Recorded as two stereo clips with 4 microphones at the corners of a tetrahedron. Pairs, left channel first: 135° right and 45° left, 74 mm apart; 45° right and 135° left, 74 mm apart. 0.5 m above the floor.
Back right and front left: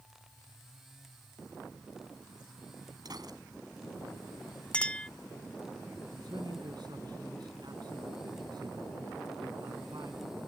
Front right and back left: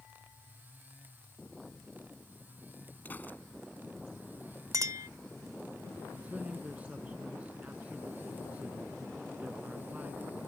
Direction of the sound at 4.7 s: 155° left.